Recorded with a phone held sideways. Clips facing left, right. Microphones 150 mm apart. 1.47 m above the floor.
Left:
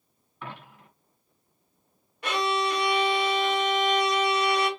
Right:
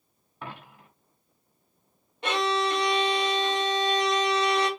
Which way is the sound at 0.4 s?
35° right (ahead or behind).